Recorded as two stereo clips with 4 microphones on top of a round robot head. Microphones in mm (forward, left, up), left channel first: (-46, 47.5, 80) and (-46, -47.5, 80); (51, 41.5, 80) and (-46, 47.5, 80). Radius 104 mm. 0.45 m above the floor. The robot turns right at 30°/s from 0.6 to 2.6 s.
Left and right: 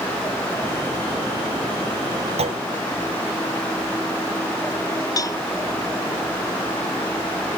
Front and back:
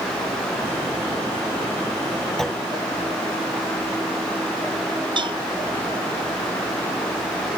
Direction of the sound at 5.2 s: 140° left.